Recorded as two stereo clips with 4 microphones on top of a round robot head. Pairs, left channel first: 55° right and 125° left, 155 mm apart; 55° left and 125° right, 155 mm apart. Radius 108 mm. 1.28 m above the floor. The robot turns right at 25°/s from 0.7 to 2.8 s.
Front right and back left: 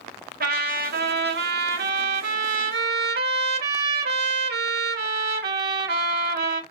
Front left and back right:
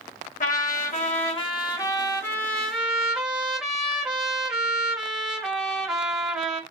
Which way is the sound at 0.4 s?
95° left.